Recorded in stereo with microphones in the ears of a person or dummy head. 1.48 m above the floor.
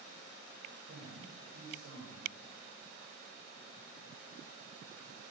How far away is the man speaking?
About 7 m.